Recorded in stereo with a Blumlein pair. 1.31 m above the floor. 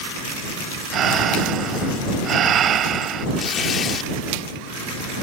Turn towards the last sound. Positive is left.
turn(degrees=25)